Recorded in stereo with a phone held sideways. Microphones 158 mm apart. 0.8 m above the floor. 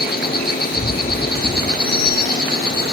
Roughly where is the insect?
Left.